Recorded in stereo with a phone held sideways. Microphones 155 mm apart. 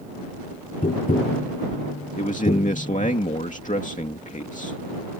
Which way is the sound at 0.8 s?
55° left (ahead or behind).